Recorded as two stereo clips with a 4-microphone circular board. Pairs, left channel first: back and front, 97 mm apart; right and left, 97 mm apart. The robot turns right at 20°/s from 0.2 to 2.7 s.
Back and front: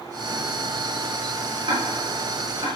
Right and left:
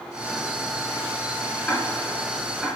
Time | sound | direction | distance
1.7 | ticking | 15° right | 2.5 m